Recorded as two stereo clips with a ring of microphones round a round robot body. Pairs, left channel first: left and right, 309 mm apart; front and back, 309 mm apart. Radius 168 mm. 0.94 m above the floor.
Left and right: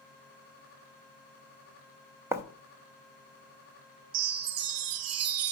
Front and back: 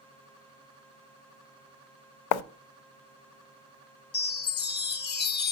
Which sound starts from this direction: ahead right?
A chime, at 4.1 s.